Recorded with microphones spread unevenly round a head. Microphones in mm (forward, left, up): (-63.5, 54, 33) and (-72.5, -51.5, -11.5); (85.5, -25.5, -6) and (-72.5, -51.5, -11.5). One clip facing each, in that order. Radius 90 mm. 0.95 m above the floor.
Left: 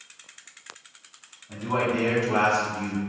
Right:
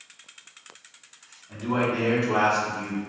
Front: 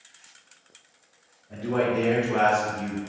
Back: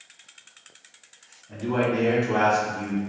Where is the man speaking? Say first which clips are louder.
Even, even; 165° left, 1.7 m; by 3.0 s 155° right, 2.5 m.